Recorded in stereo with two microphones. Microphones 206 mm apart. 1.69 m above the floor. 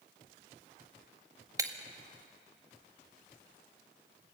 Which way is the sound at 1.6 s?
15° right (ahead or behind).